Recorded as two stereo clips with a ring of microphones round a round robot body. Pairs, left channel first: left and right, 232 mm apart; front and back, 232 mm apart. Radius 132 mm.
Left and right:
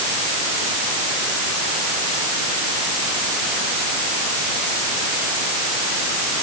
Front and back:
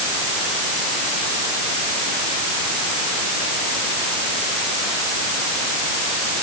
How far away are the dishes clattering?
I don't hear dishes clattering.